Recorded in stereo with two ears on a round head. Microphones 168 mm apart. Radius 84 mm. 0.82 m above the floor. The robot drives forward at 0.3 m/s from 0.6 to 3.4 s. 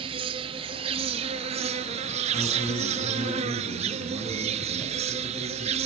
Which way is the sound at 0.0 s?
30° right (ahead or behind).